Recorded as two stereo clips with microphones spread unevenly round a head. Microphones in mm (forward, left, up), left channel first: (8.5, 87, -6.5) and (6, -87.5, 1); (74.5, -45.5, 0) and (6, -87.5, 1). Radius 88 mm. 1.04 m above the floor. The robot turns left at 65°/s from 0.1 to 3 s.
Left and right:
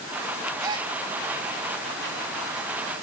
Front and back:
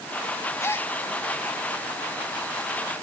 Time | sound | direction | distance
0.6 | a gasp | 20° right | 1.7 m